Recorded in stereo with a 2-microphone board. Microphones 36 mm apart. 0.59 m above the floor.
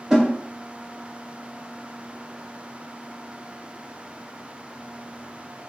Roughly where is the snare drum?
Centre.